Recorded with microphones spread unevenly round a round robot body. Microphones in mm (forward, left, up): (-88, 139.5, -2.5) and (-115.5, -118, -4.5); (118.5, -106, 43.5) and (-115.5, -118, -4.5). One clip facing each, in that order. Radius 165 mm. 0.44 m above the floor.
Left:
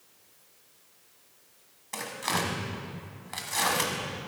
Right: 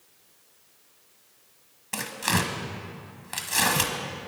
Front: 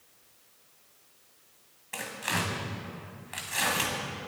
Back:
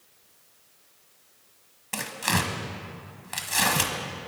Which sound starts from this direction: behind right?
Tearing paper, at 1.9 s.